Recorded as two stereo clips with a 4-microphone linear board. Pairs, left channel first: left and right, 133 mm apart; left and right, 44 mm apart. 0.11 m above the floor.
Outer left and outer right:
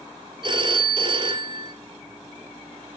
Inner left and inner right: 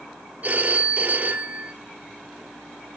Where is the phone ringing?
40° right (ahead or behind), 1.1 m.